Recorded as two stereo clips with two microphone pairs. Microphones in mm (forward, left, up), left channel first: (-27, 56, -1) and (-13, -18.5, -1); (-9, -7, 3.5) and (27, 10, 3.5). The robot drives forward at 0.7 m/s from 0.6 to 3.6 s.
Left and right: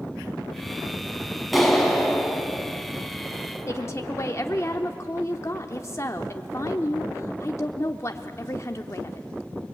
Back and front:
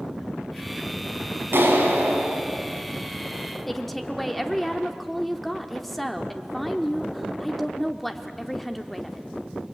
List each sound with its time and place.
1.5 s a clap: 10° left, 3.5 m
3.7 s a woman speaking: 120° left, 1.0 m